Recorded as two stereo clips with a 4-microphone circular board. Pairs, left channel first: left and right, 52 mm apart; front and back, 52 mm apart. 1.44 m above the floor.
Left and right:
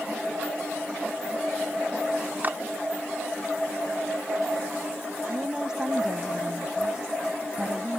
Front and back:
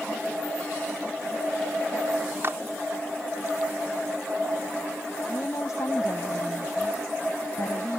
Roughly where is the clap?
Behind right.